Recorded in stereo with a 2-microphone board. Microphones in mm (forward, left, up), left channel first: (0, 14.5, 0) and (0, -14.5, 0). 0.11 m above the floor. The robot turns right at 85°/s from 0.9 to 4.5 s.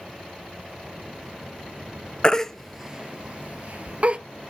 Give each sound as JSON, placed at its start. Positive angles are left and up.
{"t": 2.2, "sound": "a baby crying", "side_deg": 30, "distance_m": 0.6}